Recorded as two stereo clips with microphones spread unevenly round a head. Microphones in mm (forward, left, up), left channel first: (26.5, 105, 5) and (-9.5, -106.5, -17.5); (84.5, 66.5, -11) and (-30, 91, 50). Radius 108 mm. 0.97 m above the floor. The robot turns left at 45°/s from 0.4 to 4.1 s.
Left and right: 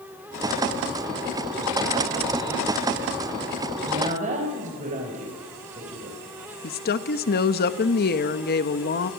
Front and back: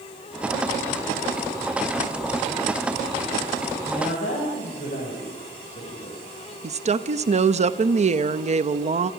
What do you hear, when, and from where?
3.9 s a woman speaking: 30° right, 4.5 m; by 6.2 s 45° right, 4.5 m
6.6 s a woman speaking: 130° left, 1.2 m